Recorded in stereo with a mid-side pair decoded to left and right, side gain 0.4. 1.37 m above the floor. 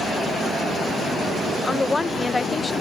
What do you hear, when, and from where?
1.6 s a woman speaking: 30° left